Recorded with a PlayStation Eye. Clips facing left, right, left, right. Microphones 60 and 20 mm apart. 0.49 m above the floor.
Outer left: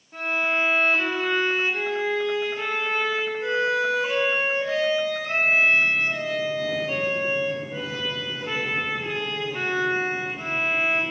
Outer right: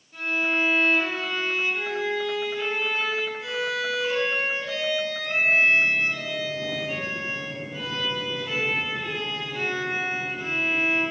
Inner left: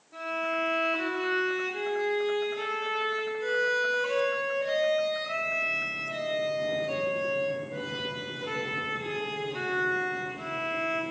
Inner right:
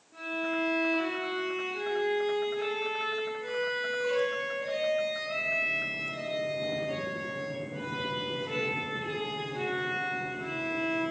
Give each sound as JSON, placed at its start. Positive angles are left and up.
{"t": 0.1, "sound": "a violin", "side_deg": 40, "distance_m": 5.0}